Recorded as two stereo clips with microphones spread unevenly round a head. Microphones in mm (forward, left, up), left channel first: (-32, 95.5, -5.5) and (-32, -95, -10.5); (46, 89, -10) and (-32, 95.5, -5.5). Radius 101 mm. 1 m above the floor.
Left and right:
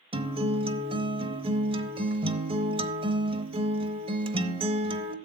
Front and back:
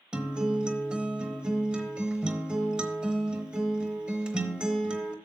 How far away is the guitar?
About 0.8 m.